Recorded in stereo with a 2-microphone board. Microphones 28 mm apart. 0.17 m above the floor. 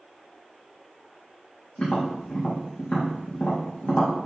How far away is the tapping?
About 3 m.